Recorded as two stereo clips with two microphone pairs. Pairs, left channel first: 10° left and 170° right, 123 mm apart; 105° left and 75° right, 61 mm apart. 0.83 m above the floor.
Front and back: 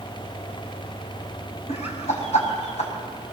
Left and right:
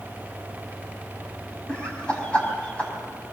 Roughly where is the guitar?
No guitar in this recording.